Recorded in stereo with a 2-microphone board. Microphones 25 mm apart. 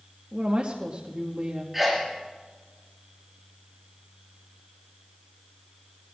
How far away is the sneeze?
About 1.2 m.